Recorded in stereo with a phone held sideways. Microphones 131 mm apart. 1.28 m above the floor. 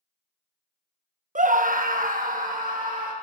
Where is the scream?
65° right (ahead or behind), 0.7 m; by 3.1 s 75° right (ahead or behind), 2.5 m.